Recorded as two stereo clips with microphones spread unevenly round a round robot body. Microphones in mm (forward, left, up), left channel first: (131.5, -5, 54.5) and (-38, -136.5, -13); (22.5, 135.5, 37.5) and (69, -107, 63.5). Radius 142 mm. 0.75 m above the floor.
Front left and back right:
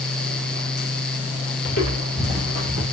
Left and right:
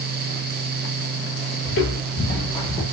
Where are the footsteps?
60° left, 1.2 m; by 2.8 s 170° right, 0.8 m.